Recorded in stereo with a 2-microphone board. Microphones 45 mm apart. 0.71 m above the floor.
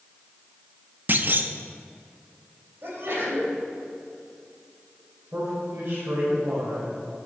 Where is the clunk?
45° right (ahead or behind), 0.6 m.